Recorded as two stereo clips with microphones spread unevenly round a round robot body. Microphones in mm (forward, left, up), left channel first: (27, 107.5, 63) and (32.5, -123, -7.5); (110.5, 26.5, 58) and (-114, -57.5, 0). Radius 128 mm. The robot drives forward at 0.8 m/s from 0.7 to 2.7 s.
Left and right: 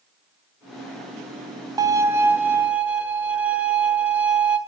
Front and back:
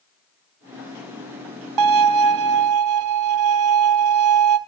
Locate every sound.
1.8 s a violin: 170° right, 0.6 m; by 4.6 s 175° right, 1.3 m